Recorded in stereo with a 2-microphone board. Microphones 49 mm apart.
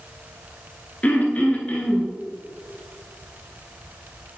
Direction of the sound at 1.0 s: 35° left (ahead or behind).